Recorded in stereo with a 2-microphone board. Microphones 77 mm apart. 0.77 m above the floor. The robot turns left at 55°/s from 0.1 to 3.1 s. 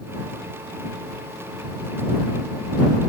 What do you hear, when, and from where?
Only background noise.